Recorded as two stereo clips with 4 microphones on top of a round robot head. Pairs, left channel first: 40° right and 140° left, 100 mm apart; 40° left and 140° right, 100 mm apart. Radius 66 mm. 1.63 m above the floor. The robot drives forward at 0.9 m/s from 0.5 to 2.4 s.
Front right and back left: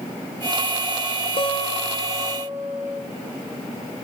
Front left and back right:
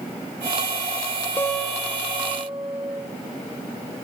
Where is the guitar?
20° right, 0.8 m; by 3.0 s 160° right, 0.8 m.